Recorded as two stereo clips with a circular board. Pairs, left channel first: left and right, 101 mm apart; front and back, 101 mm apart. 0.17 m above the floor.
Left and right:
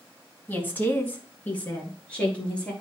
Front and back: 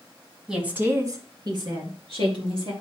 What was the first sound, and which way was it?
A woman speaking, 105° left.